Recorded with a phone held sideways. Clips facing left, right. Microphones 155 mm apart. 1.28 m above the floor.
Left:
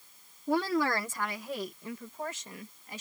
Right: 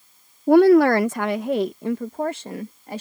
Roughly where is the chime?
No chime in this recording.